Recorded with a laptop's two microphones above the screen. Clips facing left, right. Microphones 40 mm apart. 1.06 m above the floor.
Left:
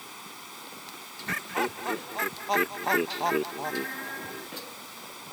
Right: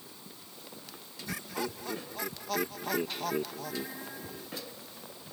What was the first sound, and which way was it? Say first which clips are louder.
Running water: left 8 dB; 85° left.